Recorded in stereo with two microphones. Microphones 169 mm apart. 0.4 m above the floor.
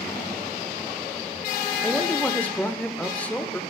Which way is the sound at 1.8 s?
5° left (ahead or behind).